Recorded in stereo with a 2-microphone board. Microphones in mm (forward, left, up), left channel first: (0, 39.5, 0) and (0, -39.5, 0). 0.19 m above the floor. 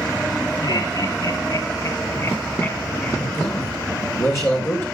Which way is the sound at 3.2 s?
30° left (ahead or behind).